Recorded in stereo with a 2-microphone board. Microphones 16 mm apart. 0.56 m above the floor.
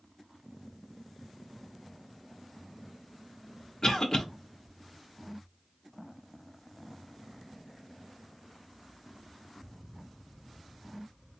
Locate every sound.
3.8 s a cough: 35° left (ahead or behind), 1.0 m